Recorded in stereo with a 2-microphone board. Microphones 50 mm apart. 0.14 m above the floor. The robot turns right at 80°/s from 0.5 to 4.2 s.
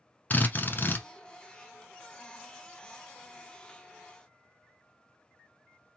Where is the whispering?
No whispering in this recording.